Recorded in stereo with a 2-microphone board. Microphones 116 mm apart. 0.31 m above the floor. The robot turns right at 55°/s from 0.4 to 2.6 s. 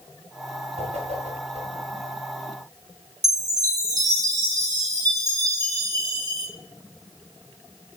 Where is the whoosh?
60° right (ahead or behind), 4.5 m; by 1.8 s 50° right (ahead or behind), 4.5 m.